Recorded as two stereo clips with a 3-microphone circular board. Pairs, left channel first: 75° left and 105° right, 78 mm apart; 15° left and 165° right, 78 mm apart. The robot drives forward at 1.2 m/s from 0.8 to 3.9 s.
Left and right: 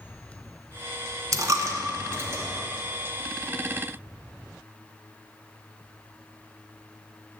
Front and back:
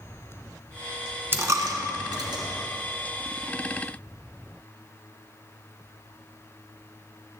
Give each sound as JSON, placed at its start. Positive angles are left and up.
{"t": 1.3, "sound": "a dropped coin", "azimuth_deg": -115, "distance_m": 0.8}